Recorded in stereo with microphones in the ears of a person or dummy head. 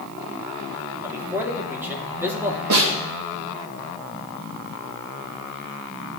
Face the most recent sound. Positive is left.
turn(degrees=-80)